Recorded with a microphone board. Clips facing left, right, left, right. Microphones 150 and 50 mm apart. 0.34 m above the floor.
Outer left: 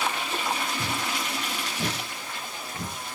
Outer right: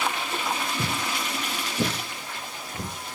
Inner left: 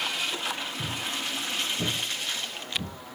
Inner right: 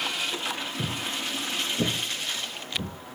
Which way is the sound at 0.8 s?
70° right (ahead or behind).